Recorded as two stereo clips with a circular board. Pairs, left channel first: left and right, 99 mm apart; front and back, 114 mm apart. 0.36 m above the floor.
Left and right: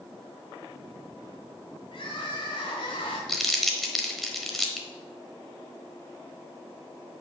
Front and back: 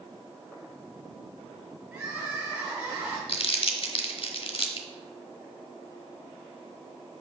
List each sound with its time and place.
1.9 s crying: 100° left, 3 m
3.3 s crumpling: straight ahead, 1.0 m